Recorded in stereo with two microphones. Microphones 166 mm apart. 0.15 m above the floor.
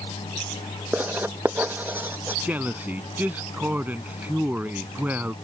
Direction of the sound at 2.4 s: 10° right (ahead or behind).